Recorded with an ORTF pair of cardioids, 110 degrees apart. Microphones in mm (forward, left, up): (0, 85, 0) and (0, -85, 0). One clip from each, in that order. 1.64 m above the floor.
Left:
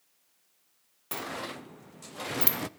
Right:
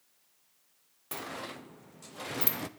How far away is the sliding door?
About 0.9 m.